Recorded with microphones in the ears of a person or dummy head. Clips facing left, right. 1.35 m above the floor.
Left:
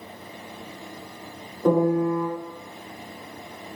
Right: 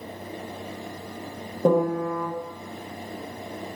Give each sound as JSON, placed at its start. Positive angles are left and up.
{"t": 1.6, "sound": "a piano", "side_deg": -40, "distance_m": 1.8}